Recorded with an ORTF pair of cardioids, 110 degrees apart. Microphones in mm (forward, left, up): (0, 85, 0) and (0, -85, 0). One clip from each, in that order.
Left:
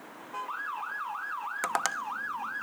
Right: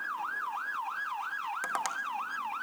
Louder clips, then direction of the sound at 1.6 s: Left 5 dB; 30° left.